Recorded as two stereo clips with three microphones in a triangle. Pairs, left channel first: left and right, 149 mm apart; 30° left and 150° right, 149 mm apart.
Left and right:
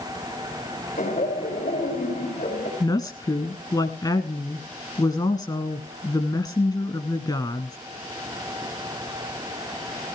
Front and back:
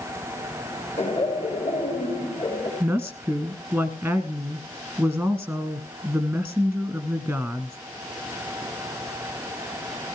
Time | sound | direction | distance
1.0 | laughter | 70° left | 3.5 m
2.8 | a woman speaking | 135° left | 1.3 m